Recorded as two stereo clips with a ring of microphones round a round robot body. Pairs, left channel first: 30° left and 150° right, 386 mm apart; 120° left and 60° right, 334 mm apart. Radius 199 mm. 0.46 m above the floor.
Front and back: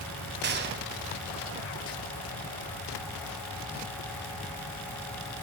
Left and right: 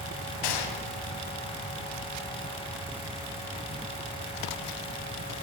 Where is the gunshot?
145° left, 2.5 m.